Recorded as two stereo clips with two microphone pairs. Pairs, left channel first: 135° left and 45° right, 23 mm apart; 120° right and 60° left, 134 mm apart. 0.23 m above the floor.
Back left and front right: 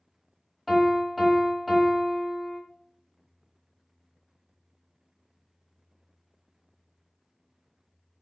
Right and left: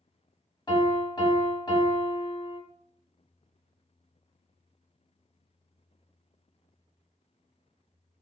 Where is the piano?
115° right, 1.0 m.